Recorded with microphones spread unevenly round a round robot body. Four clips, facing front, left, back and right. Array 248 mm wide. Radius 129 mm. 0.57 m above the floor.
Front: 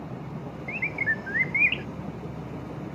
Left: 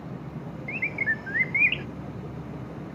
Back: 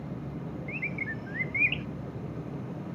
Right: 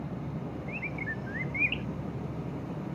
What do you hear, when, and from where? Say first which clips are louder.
0.7 s a bird: left 5 dB, front 5 dB; 50° left